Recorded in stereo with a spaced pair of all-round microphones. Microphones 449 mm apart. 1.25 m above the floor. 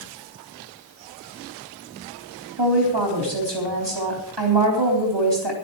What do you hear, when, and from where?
2.6 s a woman speaking: 65° right (ahead or behind), 4 m